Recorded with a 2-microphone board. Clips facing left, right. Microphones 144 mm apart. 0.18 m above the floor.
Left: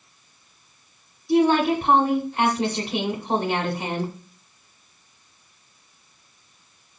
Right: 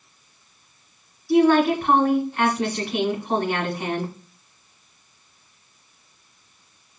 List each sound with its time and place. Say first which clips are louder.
1.3 s a woman speaking: right 2 dB; 25° left (ahead or behind), 1.1 m